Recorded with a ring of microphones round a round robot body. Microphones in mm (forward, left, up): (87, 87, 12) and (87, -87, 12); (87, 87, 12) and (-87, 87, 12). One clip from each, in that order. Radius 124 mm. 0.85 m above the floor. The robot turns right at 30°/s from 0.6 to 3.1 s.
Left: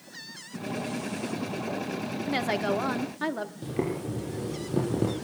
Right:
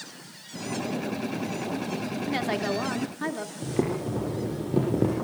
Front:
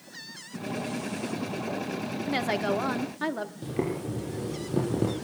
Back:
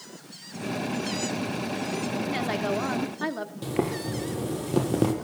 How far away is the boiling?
About 5.5 m.